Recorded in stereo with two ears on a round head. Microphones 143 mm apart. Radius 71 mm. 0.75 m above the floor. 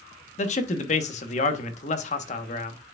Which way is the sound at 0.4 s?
45° left (ahead or behind).